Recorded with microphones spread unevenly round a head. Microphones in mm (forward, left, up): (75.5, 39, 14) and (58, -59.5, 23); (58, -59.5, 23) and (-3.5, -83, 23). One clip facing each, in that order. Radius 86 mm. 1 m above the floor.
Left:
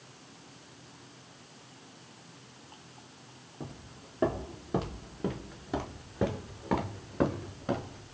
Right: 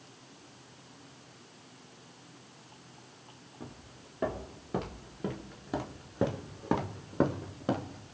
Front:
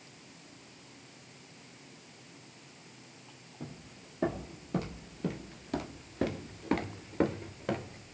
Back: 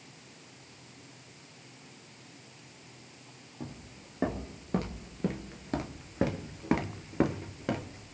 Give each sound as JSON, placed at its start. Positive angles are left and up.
{"t": 3.6, "sound": "footsteps", "azimuth_deg": 150, "distance_m": 1.6}